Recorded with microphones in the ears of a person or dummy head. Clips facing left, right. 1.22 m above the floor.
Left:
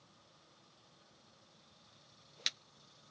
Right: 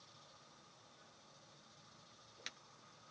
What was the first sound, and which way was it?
Only background noise.